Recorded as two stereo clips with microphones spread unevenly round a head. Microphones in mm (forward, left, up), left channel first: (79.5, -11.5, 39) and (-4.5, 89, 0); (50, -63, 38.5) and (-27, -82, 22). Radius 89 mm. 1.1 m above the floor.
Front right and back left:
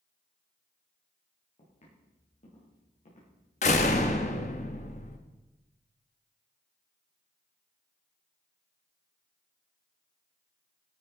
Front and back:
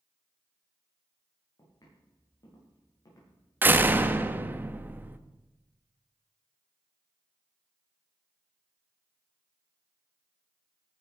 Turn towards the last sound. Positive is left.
turn(degrees=-100)